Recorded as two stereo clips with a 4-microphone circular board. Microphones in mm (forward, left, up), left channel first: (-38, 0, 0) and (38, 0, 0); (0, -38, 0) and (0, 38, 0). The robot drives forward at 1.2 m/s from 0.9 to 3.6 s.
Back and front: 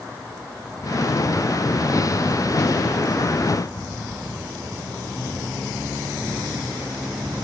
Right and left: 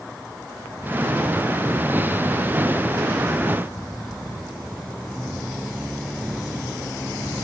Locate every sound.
Only background noise.